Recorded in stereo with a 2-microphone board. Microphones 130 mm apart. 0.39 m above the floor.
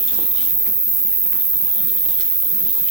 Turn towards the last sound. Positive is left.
turn(degrees=-55)  # may be behind; listen again after turning